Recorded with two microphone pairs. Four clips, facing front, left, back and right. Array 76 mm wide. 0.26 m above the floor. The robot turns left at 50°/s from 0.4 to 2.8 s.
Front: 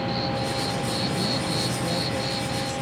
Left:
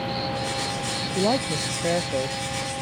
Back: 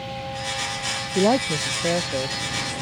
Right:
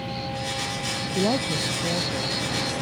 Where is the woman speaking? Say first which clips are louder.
Left 1 dB, back 7 dB; 165° left; by 2.8 s 80° left.